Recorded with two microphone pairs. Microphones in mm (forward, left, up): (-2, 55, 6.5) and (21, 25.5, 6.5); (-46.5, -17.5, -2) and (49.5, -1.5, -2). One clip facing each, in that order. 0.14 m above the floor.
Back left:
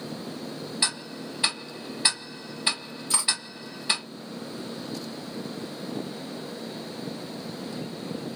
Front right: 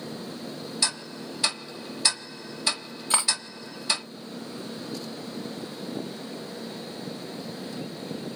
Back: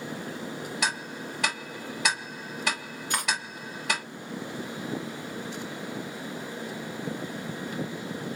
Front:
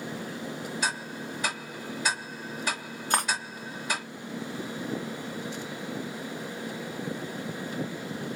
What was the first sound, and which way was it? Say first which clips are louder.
Ticking: back left 1 dB, back 2 dB; 165° right.